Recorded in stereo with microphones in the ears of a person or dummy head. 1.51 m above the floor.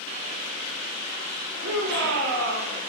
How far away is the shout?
About 6 m.